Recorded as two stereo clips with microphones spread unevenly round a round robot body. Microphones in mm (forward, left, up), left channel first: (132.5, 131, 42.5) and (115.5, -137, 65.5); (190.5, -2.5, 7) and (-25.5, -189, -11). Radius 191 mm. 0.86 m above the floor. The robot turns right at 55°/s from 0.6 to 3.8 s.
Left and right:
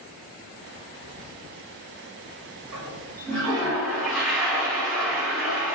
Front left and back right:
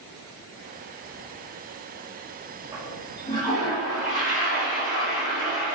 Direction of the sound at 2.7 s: 60° right.